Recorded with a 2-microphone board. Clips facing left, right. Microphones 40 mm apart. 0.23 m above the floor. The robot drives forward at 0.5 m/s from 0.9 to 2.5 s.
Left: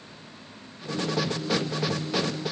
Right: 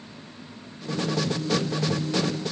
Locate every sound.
Only background noise.